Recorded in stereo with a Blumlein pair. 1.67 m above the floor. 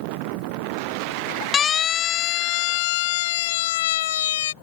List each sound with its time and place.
1.5 s a siren: 20° left; by 4.5 s 60° left